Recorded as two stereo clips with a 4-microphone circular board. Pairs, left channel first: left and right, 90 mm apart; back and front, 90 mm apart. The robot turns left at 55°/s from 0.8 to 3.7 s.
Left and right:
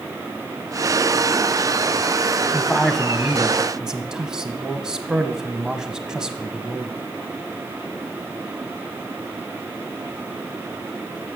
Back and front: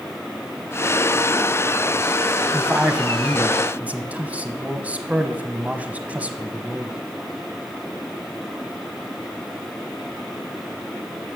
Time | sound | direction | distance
2.5 | a man speaking | 40° left | 1.0 m